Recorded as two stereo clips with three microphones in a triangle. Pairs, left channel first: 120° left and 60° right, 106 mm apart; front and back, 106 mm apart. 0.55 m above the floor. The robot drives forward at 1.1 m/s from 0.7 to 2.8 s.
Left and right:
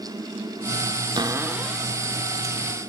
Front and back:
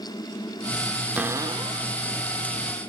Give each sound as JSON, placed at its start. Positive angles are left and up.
{"t": 1.2, "sound": "a cupboard door", "azimuth_deg": -100, "distance_m": 0.6}